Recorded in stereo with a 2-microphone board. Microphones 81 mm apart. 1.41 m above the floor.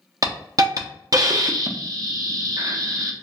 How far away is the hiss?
About 0.5 m.